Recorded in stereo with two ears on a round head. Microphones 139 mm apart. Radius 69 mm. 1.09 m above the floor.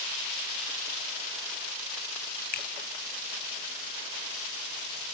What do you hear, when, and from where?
2.5 s a finger snap: 55° left (ahead or behind), 0.9 m